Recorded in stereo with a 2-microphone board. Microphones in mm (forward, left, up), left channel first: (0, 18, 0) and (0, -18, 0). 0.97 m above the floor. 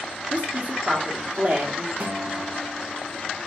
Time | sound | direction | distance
0.3 | a woman speaking | 40° right (ahead or behind) | 0.8 m
2.0 | a guitar | 55° right (ahead or behind) | 0.6 m